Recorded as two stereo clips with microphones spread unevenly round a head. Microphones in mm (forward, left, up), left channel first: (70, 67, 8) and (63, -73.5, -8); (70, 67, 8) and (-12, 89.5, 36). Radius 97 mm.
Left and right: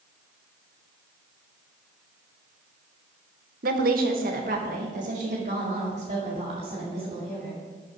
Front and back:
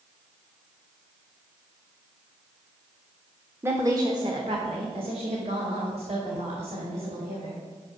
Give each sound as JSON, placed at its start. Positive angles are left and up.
{"t": 3.6, "sound": "a woman speaking", "azimuth_deg": -115, "distance_m": 0.9}